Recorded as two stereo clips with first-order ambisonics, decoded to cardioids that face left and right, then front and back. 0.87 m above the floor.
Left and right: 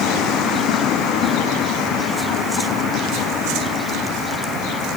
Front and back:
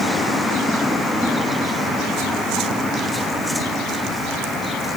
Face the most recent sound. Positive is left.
No sound to turn to.